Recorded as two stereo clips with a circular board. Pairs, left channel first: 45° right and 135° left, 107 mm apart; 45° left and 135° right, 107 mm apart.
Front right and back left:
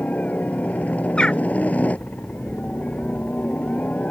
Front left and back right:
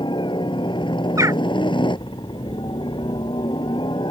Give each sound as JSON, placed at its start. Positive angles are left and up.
{"t": 0.0, "sound": "a helicopter", "azimuth_deg": 30}
{"t": 1.2, "sound": "a bird", "azimuth_deg": -115}